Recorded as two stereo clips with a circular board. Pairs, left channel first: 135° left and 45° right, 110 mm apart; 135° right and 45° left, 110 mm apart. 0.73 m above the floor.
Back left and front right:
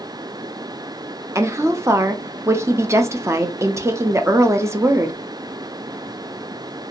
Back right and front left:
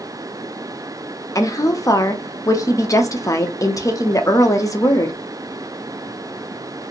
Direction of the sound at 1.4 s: 95° right.